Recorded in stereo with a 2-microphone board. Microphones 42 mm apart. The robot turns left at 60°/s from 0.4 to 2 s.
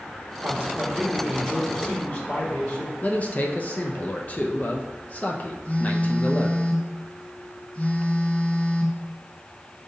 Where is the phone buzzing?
35° left (ahead or behind), 2.5 m.